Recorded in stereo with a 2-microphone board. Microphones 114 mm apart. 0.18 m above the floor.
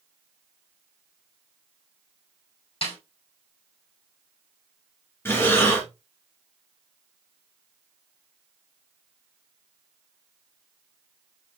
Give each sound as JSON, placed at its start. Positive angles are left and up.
{"t": 2.8, "sound": "a snare drum", "side_deg": 55, "distance_m": 4.5}
{"t": 5.2, "sound": "breathing", "side_deg": 20, "distance_m": 2.5}